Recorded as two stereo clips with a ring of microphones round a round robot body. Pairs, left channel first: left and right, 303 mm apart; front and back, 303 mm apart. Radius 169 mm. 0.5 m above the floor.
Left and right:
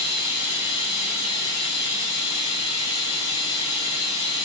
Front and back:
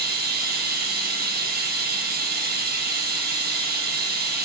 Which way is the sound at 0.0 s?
125° left.